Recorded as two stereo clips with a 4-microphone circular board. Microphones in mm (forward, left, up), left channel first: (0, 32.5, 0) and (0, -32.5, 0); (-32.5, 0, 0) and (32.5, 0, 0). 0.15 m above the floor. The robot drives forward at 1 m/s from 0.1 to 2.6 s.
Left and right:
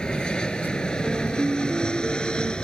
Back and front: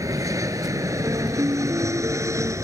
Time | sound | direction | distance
0.0 | an aircraft | 15° left | ?
1.0 | a piano | 15° right | ?